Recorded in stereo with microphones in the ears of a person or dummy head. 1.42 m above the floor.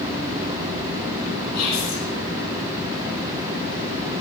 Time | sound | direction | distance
1.5 | whispering | 80° left | 3.5 m